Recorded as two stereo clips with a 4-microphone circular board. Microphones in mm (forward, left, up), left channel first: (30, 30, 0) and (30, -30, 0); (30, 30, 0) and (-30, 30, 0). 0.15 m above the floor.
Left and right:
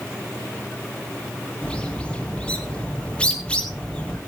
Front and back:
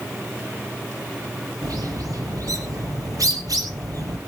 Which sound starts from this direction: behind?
A bird, at 1.6 s.